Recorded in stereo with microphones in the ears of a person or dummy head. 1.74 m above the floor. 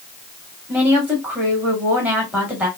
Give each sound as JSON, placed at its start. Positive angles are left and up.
{"t": 0.7, "sound": "a woman speaking", "side_deg": -20, "distance_m": 2.0}